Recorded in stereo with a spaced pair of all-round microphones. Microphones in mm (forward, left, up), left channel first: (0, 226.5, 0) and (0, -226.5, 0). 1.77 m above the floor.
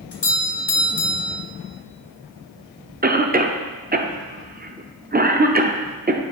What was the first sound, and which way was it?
A doorbell, 60° left (ahead or behind).